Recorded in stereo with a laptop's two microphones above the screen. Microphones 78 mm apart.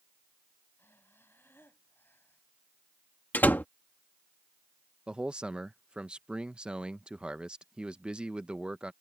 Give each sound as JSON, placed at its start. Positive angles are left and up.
{"t": 0.8, "sound": "breathing", "side_deg": 30}
{"t": 3.3, "sound": "a door slam", "side_deg": 25}
{"t": 5.1, "sound": "a man speaking", "side_deg": -10}